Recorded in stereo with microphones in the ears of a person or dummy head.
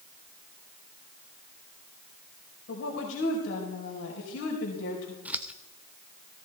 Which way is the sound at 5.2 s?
5° right (ahead or behind).